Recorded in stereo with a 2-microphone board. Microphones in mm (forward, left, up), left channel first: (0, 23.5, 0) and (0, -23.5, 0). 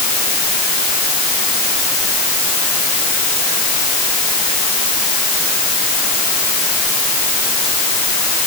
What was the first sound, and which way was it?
Only background noise.